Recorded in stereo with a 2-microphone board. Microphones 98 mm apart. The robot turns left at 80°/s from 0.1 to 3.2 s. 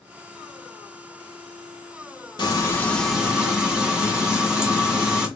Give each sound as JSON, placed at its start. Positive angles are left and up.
{"t": 2.4, "sound": "frying", "azimuth_deg": 55, "distance_m": 1.5}